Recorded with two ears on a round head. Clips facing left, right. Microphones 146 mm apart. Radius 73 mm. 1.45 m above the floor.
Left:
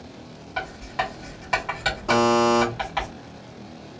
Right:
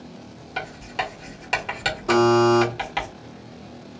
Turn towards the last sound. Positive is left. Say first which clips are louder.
# right 3 dB
turn(degrees=-10)  # may be behind; listen again after turning